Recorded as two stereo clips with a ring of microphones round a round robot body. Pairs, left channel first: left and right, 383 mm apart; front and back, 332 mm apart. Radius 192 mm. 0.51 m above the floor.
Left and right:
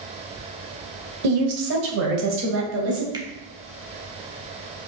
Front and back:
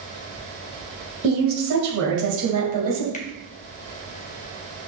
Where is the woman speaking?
120° right, 1.9 m; by 3.0 s 145° right, 2.5 m.